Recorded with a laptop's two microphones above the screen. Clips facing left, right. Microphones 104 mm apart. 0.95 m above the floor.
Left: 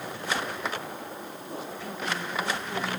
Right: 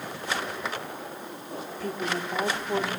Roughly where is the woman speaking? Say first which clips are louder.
Right 4 dB; right.